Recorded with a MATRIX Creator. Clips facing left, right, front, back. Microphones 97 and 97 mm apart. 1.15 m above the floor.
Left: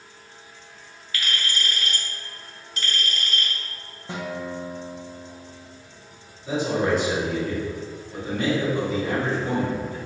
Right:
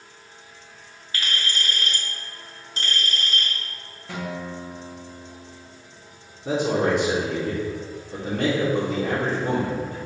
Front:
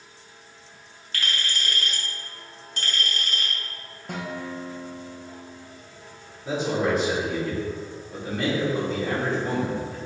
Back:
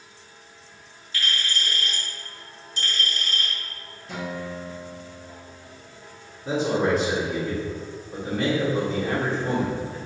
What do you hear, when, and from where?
1.1 s a clink: 30° right, 1.7 m
4.1 s a guitar: 25° left, 1.1 m
6.5 s a man speaking: 95° right, 1.8 m